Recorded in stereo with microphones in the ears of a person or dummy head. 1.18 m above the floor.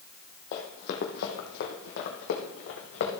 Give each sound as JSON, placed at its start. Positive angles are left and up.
{"t": 0.5, "sound": "running footsteps", "side_deg": 50, "distance_m": 1.7}